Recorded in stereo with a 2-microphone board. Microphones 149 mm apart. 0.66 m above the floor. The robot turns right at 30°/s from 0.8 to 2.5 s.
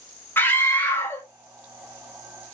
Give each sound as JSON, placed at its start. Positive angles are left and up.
{"t": 0.4, "sound": "a scream", "side_deg": 15, "distance_m": 1.1}